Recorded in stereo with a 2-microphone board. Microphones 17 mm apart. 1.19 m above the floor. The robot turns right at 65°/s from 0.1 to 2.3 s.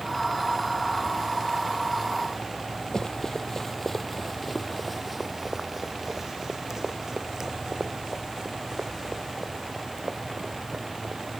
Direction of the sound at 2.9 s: 35° left (ahead or behind).